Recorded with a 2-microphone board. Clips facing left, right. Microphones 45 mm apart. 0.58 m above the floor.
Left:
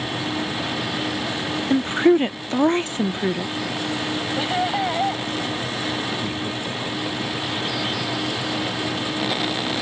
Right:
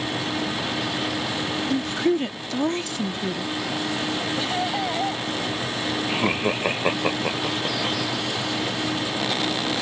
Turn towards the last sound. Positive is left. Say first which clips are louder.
# right 4 dB
turn(degrees=-55)  # may be behind; listen again after turning